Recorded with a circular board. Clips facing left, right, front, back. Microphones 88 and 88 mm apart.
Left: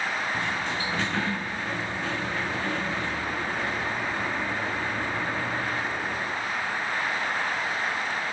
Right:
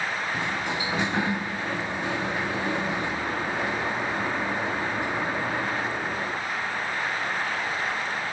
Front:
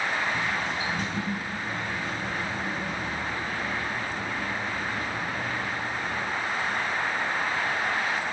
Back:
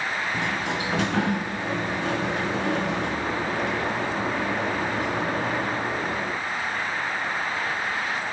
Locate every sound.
0.3 s a sliding door: 165° right, 1.1 m